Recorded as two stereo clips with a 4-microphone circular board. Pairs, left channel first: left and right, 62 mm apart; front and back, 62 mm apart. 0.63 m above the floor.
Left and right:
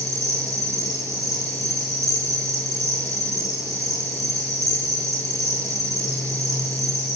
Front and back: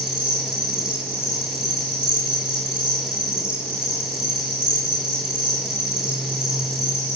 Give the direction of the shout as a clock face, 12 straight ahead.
I don't hear a shout.